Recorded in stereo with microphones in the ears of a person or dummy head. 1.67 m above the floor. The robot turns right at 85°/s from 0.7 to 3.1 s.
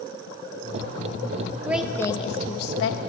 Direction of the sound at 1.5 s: 25° right (ahead or behind).